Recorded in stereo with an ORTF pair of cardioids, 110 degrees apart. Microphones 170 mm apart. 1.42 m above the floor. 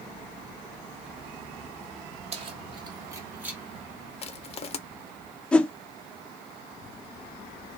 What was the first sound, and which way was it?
Keys jangling, 40° right.